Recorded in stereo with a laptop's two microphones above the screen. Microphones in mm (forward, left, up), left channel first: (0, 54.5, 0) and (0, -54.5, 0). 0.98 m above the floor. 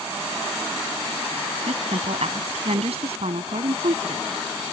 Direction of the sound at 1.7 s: 70° right (ahead or behind).